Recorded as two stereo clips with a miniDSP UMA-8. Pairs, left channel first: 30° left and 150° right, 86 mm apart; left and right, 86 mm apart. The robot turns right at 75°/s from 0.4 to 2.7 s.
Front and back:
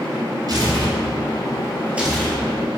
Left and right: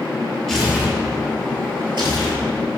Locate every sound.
0.5 s tearing paper: 170° left, 1.0 m; by 2.4 s 45° right, 1.0 m